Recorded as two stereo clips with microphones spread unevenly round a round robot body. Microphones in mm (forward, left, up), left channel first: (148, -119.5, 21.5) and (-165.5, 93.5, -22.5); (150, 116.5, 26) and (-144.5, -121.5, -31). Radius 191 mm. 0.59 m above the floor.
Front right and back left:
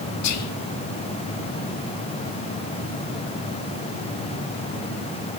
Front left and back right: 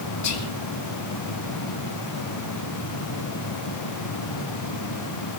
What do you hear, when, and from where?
0.2 s whispering: straight ahead, 0.8 m